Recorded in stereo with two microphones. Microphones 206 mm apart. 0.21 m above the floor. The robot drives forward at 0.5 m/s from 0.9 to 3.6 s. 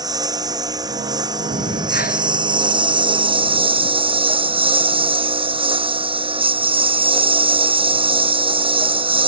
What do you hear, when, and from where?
0.0 s a lawn mower: 20° right (ahead or behind); by 9.3 s 25° right (ahead or behind)
1.5 s breathing: 60° left (ahead or behind); by 2.4 s 40° left (ahead or behind)